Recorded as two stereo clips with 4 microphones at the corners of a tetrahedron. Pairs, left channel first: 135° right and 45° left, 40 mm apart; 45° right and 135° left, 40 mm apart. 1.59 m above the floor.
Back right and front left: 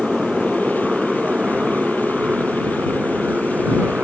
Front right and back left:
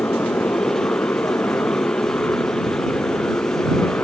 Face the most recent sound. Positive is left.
turn(degrees=-10)